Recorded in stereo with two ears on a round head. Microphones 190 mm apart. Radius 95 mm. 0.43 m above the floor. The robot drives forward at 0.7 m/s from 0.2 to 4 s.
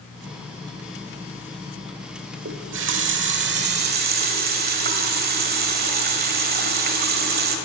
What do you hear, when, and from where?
2.5 s a running tap: 60° right (ahead or behind), 1.2 m; by 7.6 s 45° right (ahead or behind), 1.5 m